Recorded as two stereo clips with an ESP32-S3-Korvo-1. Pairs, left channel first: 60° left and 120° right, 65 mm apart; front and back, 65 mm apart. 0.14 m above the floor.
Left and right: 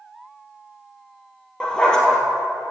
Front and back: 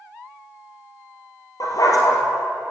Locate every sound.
1.6 s a dog barking: 20° right, 1.5 m